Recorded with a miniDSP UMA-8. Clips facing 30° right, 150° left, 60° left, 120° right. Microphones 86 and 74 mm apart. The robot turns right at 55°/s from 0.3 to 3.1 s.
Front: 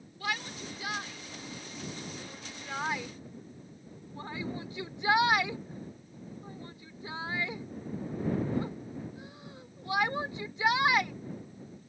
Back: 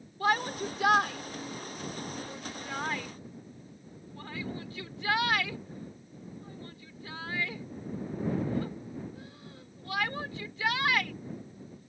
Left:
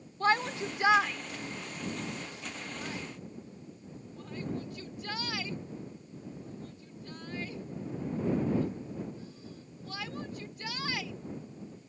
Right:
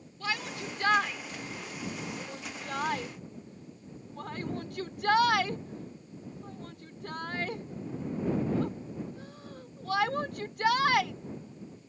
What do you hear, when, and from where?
0.2 s a shout: 105° left; by 11.1 s 100° right